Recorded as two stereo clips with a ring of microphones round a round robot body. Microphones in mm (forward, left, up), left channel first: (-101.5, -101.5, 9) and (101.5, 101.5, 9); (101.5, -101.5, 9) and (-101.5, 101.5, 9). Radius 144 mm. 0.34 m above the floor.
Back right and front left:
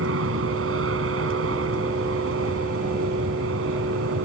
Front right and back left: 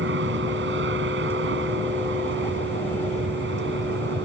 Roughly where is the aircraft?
Left.